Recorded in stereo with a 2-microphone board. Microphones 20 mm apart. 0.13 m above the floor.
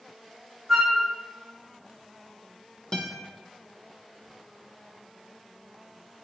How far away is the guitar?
About 0.7 m.